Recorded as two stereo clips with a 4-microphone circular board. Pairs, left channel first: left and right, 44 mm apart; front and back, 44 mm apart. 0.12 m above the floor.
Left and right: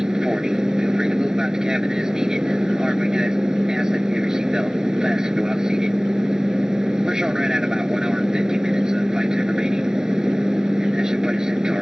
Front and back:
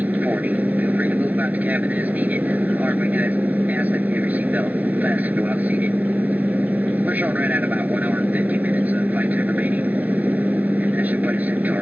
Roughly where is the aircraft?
Behind.